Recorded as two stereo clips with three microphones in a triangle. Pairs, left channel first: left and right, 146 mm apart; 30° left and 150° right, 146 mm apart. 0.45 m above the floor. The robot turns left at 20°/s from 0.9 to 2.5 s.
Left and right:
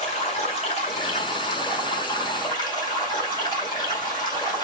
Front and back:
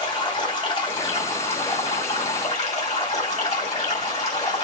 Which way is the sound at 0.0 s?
75° left.